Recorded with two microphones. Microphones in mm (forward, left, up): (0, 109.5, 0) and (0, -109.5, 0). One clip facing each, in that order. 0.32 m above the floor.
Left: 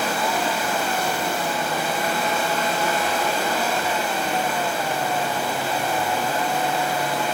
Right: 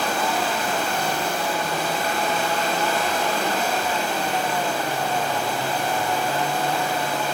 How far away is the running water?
About 3 m.